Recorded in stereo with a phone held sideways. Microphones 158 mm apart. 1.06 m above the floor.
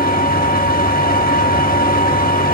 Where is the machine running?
65° left (ahead or behind), 1.0 m.